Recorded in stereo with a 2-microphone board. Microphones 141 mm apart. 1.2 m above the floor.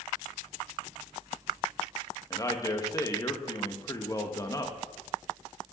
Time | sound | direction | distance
2.3 | a man speaking | 25° left (ahead or behind) | 1.8 m